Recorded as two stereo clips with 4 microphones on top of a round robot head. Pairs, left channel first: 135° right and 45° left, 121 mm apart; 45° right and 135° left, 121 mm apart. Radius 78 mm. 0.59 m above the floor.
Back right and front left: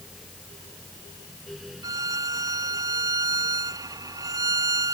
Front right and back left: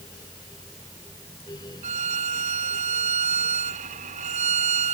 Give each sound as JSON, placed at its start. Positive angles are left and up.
{"t": 1.8, "sound": "a violin", "azimuth_deg": 105}